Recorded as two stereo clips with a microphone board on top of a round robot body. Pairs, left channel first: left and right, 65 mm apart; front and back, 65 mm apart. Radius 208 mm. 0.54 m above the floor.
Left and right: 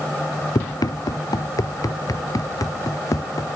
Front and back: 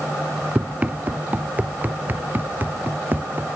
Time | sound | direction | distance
0.6 | running footsteps | 110° left | ?